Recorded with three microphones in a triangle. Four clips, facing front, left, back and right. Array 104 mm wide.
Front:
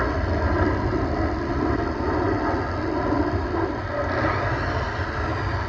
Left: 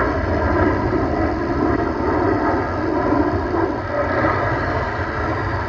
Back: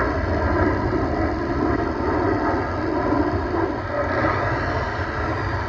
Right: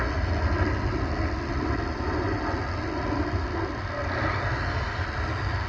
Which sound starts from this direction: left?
An aircraft, at 0.0 s.